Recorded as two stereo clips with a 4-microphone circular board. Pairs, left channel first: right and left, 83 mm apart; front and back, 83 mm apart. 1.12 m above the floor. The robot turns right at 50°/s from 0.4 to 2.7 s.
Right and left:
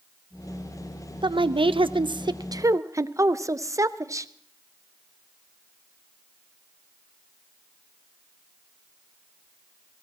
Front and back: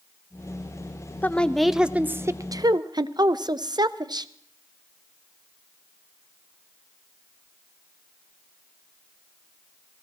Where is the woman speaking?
70° left, 0.5 m; by 4.3 s 145° left, 0.5 m.